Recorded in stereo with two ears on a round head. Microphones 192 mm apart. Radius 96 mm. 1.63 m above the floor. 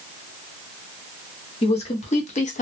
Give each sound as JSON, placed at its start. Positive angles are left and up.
{"t": 1.6, "sound": "a woman speaking", "side_deg": 30, "distance_m": 0.9}